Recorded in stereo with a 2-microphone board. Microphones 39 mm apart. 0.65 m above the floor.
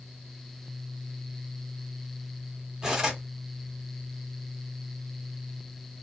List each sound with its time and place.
2.8 s cutlery clinking: 15° right (ahead or behind), 1.1 m